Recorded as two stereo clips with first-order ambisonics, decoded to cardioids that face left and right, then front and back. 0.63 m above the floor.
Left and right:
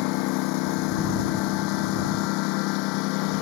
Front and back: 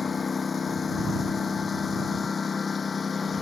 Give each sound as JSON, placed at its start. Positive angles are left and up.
{"t": 0.0, "sound": "a lawn mower", "azimuth_deg": 70}